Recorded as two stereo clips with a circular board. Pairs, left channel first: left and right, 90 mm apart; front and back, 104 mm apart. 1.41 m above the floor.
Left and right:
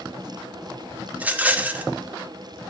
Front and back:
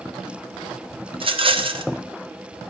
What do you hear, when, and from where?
1.1 s a rattle: 160° right, 0.5 m